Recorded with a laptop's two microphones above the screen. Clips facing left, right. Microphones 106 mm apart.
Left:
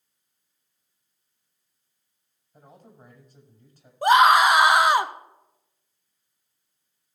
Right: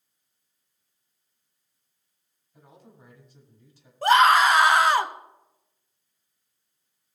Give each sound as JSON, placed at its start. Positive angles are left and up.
{"t": 2.5, "sound": "a man speaking", "side_deg": 50, "distance_m": 5.5}
{"t": 4.0, "sound": "a scream", "side_deg": 15, "distance_m": 1.0}